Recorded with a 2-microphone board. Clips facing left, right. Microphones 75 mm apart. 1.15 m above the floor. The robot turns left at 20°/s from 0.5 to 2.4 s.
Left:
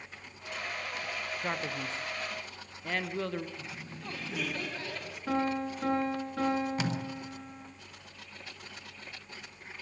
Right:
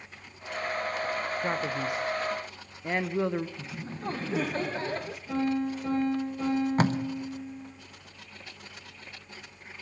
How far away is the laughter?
About 0.8 m.